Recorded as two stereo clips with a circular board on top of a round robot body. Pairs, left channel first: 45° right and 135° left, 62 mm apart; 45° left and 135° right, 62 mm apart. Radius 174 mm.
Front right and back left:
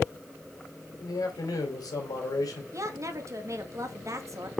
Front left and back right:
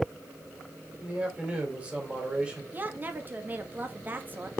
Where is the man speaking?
65° right, 3 m.